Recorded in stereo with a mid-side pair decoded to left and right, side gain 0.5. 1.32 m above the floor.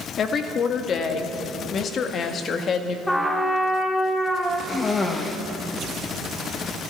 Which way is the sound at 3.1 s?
10° left.